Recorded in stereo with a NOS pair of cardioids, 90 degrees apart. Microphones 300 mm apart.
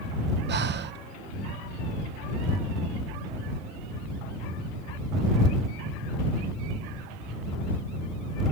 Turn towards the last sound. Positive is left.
turn(degrees=-35)